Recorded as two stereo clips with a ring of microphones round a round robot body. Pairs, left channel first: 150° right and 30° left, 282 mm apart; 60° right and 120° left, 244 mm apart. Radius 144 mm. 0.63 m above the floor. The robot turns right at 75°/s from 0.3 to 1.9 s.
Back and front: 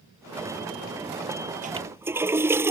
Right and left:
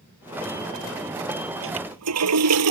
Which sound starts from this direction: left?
A toilet flushing, at 1.6 s.